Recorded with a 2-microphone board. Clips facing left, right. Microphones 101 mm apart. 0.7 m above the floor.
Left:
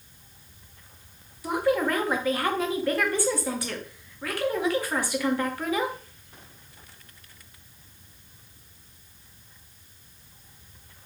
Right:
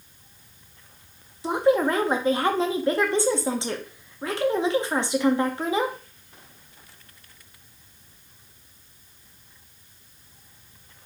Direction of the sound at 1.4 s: 25° right (ahead or behind).